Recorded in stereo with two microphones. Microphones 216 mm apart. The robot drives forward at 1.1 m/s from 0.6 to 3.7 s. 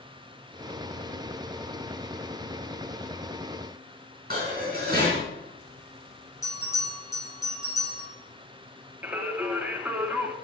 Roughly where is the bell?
Centre.